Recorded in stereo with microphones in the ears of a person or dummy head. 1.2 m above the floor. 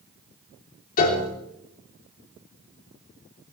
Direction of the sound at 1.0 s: 50° left (ahead or behind).